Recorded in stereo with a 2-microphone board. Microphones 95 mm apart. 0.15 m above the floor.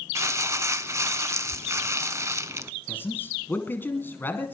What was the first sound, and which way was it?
Crumpling, 30° right (ahead or behind).